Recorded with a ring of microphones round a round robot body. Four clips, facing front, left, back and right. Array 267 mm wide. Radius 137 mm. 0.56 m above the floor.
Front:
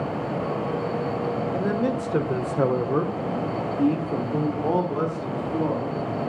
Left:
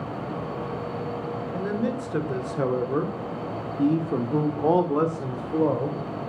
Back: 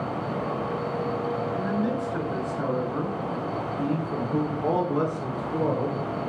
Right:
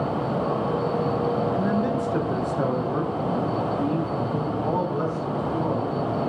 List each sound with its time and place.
1.5 s a man speaking: 5° right, 2 m; by 6.0 s 120° left, 2 m